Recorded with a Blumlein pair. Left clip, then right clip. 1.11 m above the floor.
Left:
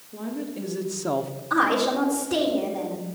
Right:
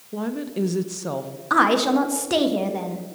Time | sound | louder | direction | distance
0.1 | a woman speaking | right 5 dB | 40° right | 1.1 m
1.5 | a woman speaking | right 4 dB | 60° right | 1.5 m